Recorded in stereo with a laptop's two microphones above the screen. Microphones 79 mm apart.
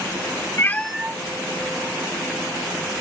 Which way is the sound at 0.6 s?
35° left (ahead or behind).